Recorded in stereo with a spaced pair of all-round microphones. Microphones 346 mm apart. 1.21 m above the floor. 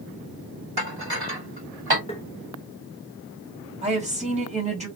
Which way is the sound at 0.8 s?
80° right.